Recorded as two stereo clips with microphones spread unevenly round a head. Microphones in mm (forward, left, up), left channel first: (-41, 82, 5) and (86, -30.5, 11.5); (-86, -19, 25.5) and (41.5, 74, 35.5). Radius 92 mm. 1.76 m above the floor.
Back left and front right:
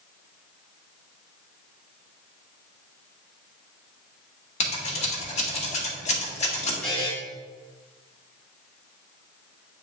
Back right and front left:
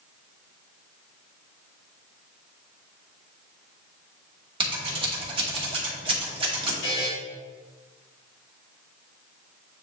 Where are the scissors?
90° left, 1.7 m.